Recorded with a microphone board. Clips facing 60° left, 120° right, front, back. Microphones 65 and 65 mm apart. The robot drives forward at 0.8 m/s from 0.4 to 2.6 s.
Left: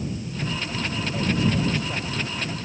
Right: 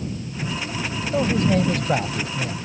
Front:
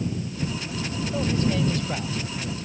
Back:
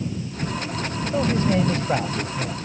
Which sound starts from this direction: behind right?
A man speaking, at 1.1 s.